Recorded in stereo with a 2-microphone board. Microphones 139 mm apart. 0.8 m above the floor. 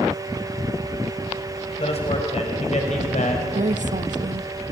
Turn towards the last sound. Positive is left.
turn(degrees=-60)  # may be behind; listen again after turning